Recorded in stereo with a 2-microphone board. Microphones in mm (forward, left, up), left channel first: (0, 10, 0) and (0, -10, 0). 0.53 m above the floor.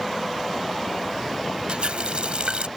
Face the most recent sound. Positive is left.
turn(degrees=-65)  # may be behind; listen again after turning